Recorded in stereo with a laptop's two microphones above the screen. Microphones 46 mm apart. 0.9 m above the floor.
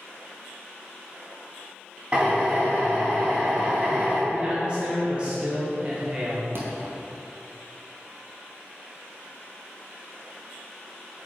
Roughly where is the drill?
Right.